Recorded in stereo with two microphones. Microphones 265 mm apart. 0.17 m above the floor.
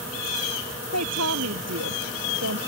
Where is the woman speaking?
75° right (ahead or behind).